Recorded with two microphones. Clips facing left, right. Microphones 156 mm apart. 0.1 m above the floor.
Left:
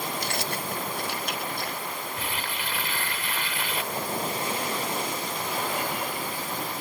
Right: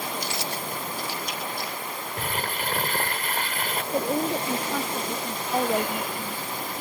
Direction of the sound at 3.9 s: 80° right.